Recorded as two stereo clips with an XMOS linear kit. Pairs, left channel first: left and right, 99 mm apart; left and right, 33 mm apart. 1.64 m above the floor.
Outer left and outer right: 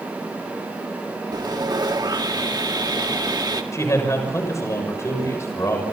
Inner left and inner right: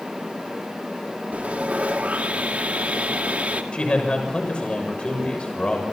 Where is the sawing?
45° right (ahead or behind), 1.9 m.